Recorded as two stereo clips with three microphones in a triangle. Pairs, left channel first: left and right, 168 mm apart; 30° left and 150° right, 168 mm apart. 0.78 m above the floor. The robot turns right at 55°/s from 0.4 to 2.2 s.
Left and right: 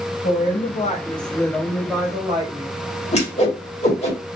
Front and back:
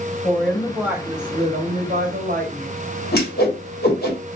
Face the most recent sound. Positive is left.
turn(degrees=45)